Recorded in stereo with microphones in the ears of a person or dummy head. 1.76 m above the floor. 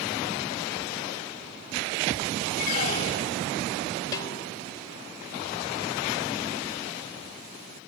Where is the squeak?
50° left (ahead or behind).